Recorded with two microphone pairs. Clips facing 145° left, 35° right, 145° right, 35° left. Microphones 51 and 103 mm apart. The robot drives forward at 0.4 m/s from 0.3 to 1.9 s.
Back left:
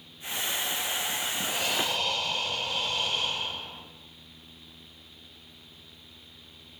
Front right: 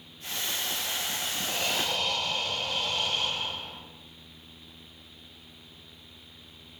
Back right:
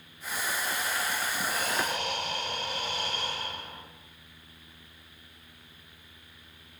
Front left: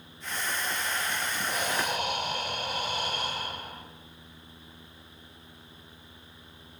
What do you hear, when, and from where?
1.5 s breathing: 70° left, 1.5 m; by 3.8 s 85° left, 1.5 m